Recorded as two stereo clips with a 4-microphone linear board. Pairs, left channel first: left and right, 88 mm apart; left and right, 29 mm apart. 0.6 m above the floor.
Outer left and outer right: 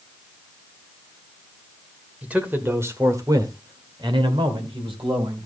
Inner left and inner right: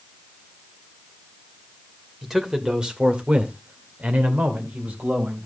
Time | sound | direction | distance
2.2 | a man speaking | 15° right (ahead or behind) | 2.5 m